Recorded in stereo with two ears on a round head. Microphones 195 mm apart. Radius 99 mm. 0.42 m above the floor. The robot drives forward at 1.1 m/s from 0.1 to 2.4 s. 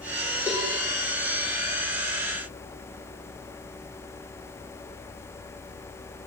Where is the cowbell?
5° right (ahead or behind), 9.5 m.